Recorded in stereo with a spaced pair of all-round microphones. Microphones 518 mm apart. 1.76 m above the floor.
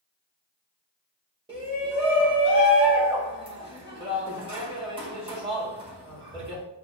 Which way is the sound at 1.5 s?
10° right (ahead or behind).